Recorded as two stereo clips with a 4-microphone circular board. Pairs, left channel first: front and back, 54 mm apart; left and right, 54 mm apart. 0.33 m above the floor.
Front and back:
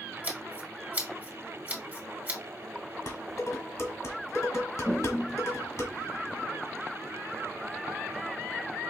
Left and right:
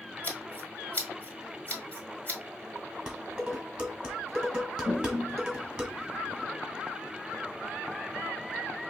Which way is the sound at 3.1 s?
15° right.